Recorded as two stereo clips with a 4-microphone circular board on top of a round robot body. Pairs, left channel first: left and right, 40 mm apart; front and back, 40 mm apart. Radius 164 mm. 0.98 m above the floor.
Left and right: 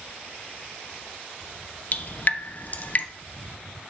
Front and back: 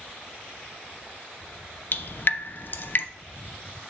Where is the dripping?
40° left, 0.6 m.